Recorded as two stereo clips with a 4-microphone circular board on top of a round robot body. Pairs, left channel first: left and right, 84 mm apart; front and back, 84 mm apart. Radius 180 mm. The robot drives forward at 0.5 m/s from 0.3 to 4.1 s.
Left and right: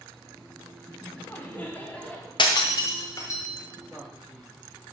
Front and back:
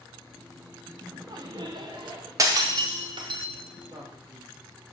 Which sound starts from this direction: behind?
A man speaking, at 3.9 s.